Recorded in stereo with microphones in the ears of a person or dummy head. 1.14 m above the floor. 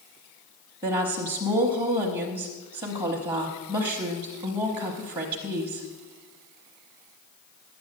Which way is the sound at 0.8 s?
25° right (ahead or behind).